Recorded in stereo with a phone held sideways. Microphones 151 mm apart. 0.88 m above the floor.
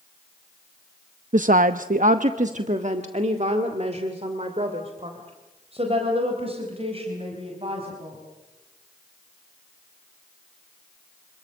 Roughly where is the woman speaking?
Right.